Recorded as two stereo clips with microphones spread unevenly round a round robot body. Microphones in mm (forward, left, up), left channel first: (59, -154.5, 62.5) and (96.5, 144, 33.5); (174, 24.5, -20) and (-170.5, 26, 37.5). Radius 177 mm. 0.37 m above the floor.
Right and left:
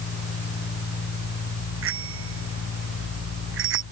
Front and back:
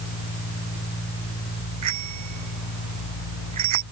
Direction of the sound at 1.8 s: 140° left.